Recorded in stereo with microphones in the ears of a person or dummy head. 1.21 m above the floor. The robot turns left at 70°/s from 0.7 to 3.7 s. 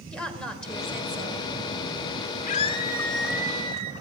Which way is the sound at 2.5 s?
55° left.